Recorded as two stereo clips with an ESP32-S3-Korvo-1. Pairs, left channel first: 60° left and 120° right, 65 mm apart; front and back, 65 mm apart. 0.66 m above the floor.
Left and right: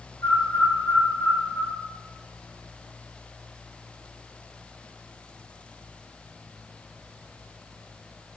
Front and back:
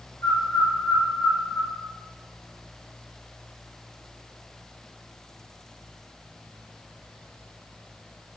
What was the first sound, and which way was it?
A bird, 10° left.